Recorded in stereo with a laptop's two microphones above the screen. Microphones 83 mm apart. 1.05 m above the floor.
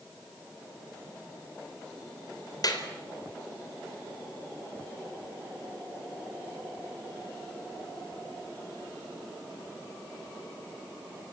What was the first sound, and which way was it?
A clap, 50° left (ahead or behind).